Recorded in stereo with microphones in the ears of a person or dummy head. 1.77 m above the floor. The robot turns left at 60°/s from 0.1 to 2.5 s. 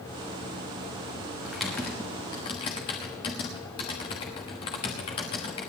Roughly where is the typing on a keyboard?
Centre.